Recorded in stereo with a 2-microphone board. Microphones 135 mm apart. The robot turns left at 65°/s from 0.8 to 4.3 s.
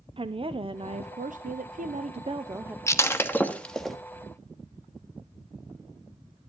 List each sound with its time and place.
0.2 s a woman speaking: 40° right, 0.7 m; by 2.8 s 170° right, 0.7 m
2.9 s breaking glass: 20° left (ahead or behind), 1.1 m; by 4.0 s centre (ahead or behind), 1.1 m